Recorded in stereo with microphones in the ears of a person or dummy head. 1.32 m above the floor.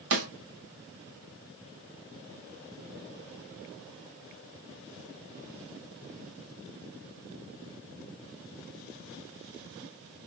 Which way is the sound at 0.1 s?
80° right.